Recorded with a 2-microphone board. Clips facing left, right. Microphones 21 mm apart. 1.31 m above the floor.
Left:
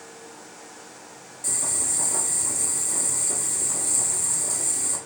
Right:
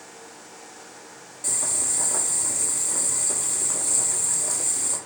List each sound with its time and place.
1.4 s boiling: 15° right (ahead or behind), 1.4 m